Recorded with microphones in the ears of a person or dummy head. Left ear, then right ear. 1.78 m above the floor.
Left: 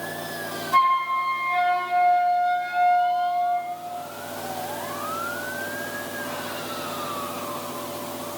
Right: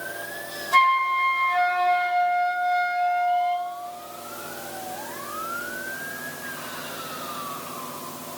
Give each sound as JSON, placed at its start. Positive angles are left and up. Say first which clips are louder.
{"t": 0.7, "sound": "a flute", "louder": "right 1 dB", "side_deg": -20, "distance_m": 3.5}